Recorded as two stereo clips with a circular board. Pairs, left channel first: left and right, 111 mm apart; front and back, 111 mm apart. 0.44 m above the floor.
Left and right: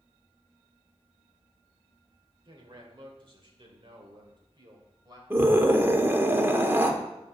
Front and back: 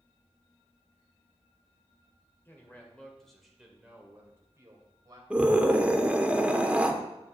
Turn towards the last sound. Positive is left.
turn(degrees=-120)